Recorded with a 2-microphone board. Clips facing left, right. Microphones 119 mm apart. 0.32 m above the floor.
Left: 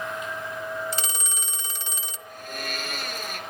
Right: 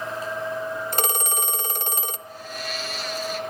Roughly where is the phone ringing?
Right.